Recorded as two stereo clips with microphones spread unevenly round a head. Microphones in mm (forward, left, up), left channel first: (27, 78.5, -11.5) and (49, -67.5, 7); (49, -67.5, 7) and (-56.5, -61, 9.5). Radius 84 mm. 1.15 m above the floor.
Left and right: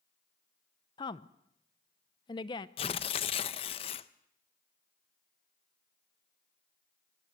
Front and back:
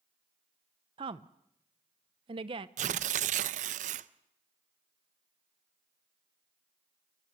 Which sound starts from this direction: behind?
Tearing paper, at 2.8 s.